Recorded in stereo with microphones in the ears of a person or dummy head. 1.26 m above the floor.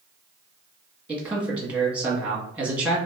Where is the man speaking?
10° right (ahead or behind), 0.8 m.